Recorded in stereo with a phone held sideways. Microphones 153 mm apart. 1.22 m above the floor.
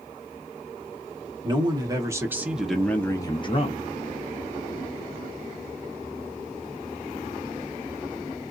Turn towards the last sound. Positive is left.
turn(degrees=50)  # may be behind; listen again after turning